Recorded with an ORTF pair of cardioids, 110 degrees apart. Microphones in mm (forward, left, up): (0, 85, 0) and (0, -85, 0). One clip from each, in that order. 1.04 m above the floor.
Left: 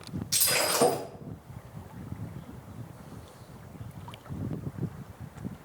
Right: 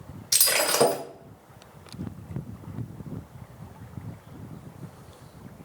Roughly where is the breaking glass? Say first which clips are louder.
Right 4 dB; ahead right.